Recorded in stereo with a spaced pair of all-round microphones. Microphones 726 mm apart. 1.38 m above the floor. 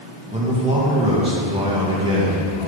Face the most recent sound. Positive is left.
turn(degrees=-5)  # may be behind; listen again after turning